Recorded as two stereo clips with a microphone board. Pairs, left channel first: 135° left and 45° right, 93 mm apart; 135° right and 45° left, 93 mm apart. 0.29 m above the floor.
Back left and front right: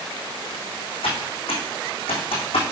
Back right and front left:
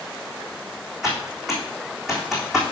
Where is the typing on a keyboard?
130° left, 3.5 m.